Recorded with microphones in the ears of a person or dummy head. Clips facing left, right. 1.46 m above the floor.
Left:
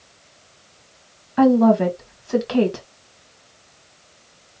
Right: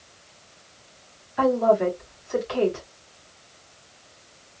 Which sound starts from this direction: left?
A woman speaking, at 1.4 s.